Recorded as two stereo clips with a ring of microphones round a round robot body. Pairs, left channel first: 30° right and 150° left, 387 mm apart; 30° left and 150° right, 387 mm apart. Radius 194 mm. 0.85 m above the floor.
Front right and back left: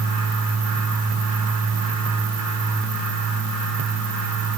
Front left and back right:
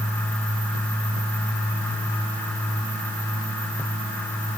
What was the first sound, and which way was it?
Only background noise.